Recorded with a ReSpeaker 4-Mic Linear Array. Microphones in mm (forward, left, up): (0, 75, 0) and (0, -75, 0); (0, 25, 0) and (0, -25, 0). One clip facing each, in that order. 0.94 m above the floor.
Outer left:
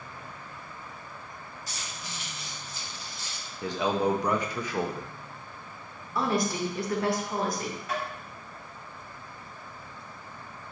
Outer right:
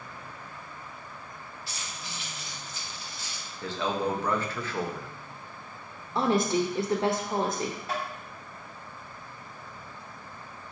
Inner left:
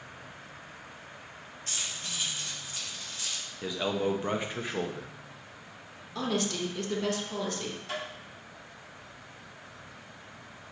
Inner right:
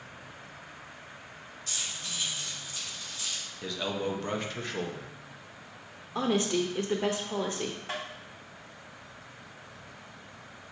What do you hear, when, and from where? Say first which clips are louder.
1.7 s keys jangling: even, even; 40° left (ahead or behind), 1.4 m
3.6 s a man speaking: outer left 3 dB, inner left 3 dB; 15° left (ahead or behind), 0.7 m
6.2 s a woman speaking: outer right 3 dB, inner right 3 dB; 25° right (ahead or behind), 0.8 m
7.9 s tapping: outer left 4 dB, even; 30° right (ahead or behind), 2.5 m